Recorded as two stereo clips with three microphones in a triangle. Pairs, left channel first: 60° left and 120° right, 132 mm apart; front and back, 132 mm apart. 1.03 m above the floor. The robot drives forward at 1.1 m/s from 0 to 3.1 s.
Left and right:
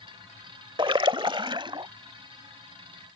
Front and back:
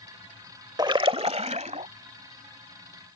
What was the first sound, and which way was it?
A splash, 140° right.